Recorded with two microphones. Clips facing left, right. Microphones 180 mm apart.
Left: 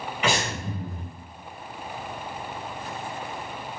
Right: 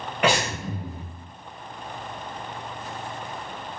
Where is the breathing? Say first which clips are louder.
Right 4 dB; 60° right (ahead or behind), 2.0 m.